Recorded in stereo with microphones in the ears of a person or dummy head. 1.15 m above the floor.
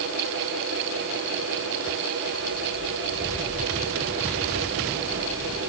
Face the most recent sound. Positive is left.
No sound to turn to.